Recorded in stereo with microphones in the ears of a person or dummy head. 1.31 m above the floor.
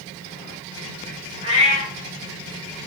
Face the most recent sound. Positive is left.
turn(degrees=-25)  # may be behind; listen again after turning